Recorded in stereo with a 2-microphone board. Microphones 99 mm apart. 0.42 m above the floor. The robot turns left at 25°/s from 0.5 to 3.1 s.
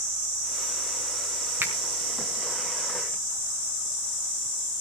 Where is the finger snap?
20° right (ahead or behind), 4.5 m; by 1.7 s 15° right (ahead or behind), 4.5 m.